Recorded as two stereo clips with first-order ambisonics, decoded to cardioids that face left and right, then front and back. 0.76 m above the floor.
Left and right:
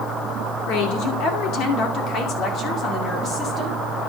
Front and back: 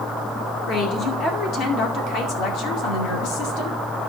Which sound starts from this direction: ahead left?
A woman speaking, at 0.7 s.